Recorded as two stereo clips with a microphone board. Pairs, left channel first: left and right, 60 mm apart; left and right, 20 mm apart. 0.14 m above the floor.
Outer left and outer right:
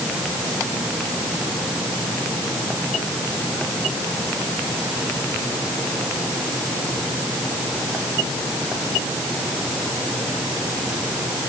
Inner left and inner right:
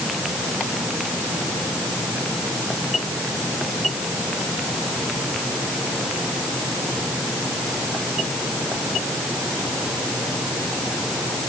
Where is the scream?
I don't hear a scream.